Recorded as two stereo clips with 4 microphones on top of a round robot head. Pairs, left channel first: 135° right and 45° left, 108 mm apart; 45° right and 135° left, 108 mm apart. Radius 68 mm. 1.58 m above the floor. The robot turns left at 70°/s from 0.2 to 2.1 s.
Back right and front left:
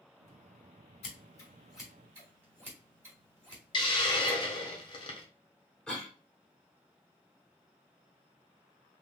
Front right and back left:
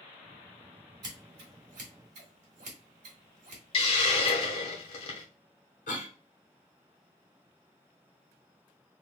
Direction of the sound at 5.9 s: 50° right.